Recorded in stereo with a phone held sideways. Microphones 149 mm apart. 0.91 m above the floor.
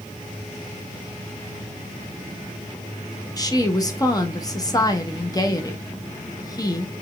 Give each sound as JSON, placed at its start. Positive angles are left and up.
{"t": 3.4, "sound": "a woman speaking", "side_deg": 25, "distance_m": 0.8}